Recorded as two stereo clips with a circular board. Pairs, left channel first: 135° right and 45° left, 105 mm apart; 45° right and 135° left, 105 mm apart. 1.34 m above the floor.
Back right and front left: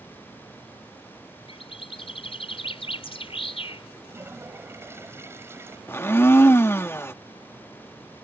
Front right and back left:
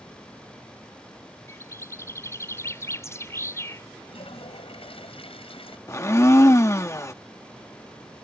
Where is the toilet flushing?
20° right.